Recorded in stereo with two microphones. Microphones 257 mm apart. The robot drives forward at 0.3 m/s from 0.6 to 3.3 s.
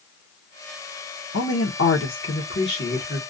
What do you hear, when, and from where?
1.3 s a woman speaking: 65° left (ahead or behind), 0.7 m; by 3.2 s 40° left (ahead or behind), 1.0 m